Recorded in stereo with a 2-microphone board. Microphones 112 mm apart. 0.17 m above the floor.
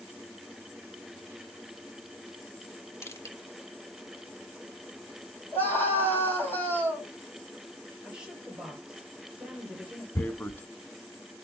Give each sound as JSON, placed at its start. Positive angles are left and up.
{"t": 3.0, "sound": "crushing", "side_deg": 25, "distance_m": 1.4}
{"t": 5.5, "sound": "a scream", "side_deg": 15, "distance_m": 5.5}
{"t": 8.0, "sound": "a woman speaking", "side_deg": -5, "distance_m": 3.5}
{"t": 10.2, "sound": "tearing paper", "side_deg": 15, "distance_m": 0.8}